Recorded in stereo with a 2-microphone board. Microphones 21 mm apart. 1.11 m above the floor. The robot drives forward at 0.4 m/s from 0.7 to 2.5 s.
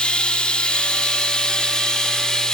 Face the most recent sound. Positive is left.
turn(degrees=40)  # may be behind; listen again after turning